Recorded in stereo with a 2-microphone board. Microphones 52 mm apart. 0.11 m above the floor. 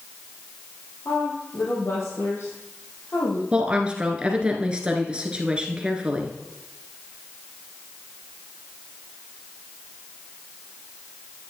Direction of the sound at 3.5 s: 20° right (ahead or behind).